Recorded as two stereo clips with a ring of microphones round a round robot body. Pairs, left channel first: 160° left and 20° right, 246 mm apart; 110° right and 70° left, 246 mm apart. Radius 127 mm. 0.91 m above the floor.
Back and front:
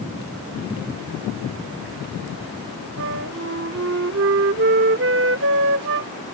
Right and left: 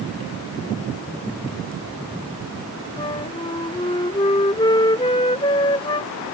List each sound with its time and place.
3.0 s a flute: 45° right